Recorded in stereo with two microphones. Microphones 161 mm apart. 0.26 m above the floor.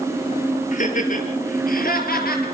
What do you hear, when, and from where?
0.7 s laughter: 50° left (ahead or behind), 6 m; by 2.5 s 70° left (ahead or behind), 6.5 m